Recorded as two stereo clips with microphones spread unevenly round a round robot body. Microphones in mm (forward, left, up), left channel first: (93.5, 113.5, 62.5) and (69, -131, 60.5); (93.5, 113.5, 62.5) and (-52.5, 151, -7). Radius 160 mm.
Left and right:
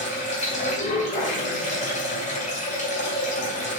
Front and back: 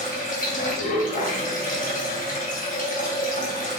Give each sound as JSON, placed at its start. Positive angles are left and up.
{"t": 0.0, "sound": "running water", "azimuth_deg": 25, "distance_m": 2.5}